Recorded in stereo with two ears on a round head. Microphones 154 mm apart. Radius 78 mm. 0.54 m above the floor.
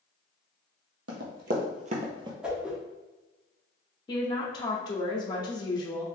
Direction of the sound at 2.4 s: 5° right (ahead or behind).